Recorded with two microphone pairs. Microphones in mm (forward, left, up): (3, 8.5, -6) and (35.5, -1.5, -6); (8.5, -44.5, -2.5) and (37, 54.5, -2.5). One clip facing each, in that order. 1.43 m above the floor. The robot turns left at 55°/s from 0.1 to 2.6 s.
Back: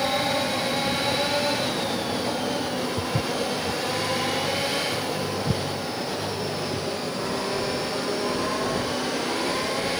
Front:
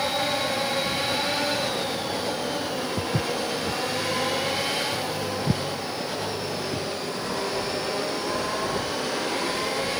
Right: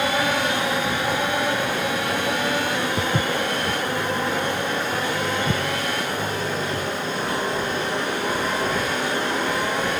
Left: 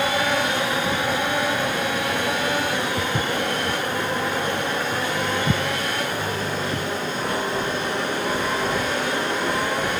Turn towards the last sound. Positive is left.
turn(degrees=10)